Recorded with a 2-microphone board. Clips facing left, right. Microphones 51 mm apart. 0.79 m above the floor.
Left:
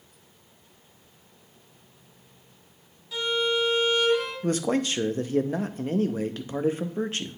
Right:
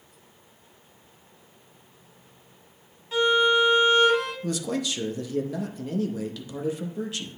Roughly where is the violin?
Right.